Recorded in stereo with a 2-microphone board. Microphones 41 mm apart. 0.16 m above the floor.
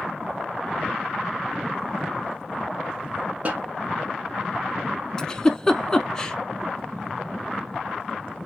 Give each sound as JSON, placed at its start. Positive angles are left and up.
{"t": 3.5, "sound": "a snare drum", "side_deg": -35, "distance_m": 0.8}
{"t": 5.2, "sound": "a giggle", "side_deg": 20, "distance_m": 0.5}